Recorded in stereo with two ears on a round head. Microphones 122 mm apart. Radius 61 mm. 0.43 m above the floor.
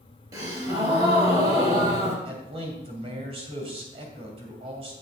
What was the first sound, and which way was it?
A gasp, 30° right (ahead or behind).